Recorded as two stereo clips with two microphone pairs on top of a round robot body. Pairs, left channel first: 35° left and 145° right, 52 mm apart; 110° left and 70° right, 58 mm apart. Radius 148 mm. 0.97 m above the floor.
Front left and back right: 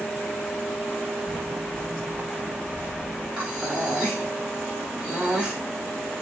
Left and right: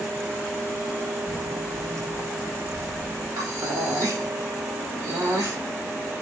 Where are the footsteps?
50° right, 3 m; by 3.3 s 80° right, 3.5 m.